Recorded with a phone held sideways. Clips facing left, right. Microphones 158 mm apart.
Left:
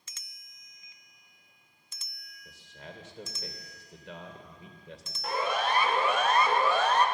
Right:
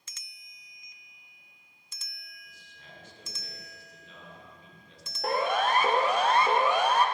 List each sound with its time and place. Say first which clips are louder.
2.5 s a man speaking: left 10 dB; 90° left, 3 m
5.2 s a siren: right 3 dB; 60° right (ahead or behind), 2 m; by 7.0 s 10° right (ahead or behind), 1.8 m